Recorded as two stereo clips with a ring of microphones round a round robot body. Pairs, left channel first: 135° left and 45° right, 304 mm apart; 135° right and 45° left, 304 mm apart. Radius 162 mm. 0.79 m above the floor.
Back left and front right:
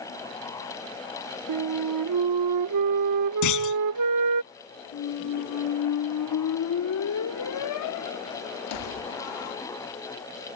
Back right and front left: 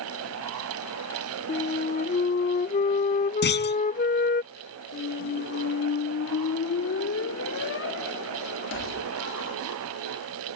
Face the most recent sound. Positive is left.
turn(degrees=175)